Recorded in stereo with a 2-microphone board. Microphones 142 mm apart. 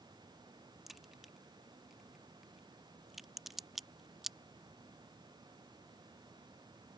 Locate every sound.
0.9 s a crack: centre (ahead or behind)